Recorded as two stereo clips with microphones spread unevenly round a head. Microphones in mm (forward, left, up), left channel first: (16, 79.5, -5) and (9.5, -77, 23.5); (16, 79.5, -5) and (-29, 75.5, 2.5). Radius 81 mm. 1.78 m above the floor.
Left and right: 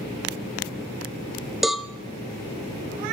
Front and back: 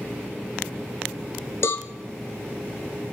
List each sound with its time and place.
1.6 s a cowbell: 15° right, 0.7 m